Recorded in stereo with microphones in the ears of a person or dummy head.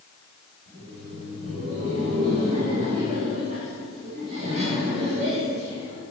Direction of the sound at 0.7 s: 40° right (ahead or behind).